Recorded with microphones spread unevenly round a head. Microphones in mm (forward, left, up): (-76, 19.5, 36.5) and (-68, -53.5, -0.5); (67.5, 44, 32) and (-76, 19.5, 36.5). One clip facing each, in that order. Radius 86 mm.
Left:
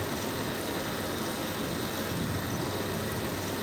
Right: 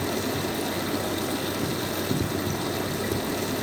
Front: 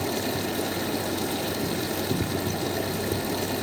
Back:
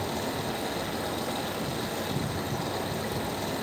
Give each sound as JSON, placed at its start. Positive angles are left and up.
{"t": 0.0, "sound": "running water", "azimuth_deg": -45, "distance_m": 6.0}